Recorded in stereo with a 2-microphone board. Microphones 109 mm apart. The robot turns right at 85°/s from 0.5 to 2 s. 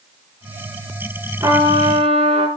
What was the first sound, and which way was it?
A trumpet, 155° right.